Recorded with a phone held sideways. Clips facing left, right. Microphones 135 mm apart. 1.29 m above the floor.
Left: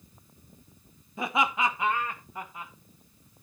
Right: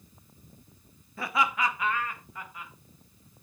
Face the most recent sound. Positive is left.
turn(degrees=30)  # may be behind; listen again after turning